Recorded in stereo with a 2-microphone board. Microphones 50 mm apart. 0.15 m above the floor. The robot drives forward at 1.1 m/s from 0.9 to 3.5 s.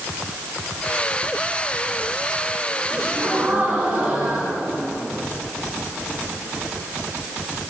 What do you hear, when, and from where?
2.9 s a gasp: 40° right (ahead or behind), 8.5 m; by 5.3 s 35° right (ahead or behind), 9 m